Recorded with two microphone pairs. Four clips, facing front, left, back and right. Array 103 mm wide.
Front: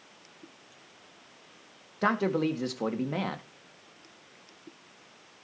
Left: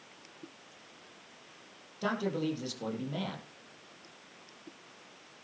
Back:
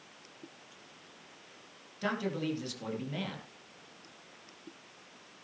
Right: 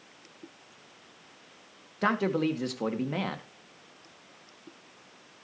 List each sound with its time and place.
2.0 s a man speaking: 30° right, 2.5 m